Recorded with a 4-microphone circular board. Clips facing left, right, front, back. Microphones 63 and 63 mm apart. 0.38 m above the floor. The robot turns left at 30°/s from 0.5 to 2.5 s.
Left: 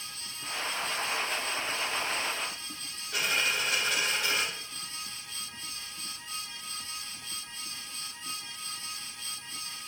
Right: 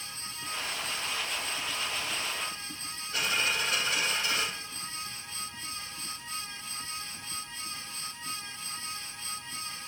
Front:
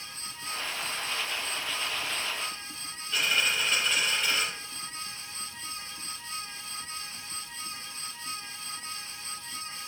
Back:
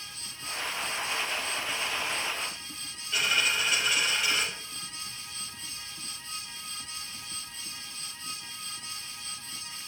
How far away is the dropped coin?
About 5 m.